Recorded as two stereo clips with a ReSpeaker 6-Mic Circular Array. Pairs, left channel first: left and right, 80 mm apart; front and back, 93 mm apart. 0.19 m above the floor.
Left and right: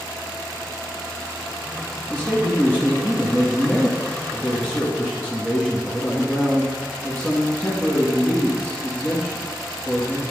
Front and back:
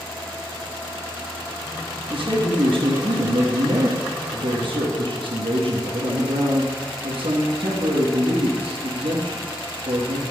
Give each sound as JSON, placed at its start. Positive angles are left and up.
{"t": 2.1, "sound": "a man speaking", "azimuth_deg": 170, "distance_m": 2.5}